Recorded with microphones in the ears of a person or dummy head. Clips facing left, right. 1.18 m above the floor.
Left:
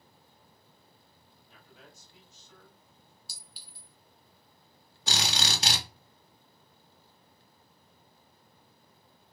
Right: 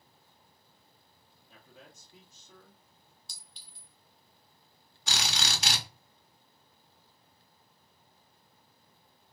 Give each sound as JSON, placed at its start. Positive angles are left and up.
{"t": 1.5, "sound": "a man speaking", "side_deg": -75, "distance_m": 1.5}
{"t": 3.3, "sound": "a clink", "side_deg": 5, "distance_m": 0.8}
{"t": 5.1, "sound": "a drill", "side_deg": 35, "distance_m": 1.1}